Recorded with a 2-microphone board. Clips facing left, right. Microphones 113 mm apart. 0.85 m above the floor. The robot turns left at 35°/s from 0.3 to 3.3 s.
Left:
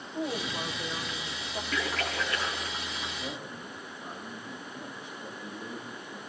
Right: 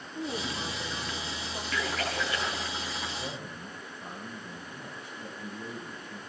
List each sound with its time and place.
0.1 s a woman speaking: 45° left, 3.5 m; by 1.6 s straight ahead, 3.5 m
1.7 s a splash: 5° left (ahead or behind), 4.5 m; by 3.1 s 45° right (ahead or behind), 4.5 m
3.2 s a man speaking: 65° right (ahead or behind), 6 m; by 6.2 s 70° right (ahead or behind), 6 m